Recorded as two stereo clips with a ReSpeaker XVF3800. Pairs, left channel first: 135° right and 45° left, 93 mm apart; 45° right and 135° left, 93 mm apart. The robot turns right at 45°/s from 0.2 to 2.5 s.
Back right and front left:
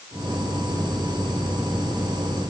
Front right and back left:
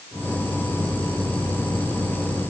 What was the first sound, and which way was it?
Only background noise.